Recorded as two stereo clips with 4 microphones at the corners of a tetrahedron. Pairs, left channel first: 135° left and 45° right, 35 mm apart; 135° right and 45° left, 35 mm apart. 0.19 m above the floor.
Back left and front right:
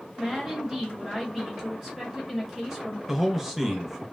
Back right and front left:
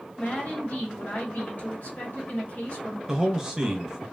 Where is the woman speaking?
130° right, 1.9 m.